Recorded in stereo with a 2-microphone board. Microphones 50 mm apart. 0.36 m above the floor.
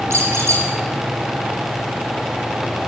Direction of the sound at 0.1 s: 65° right (ahead or behind).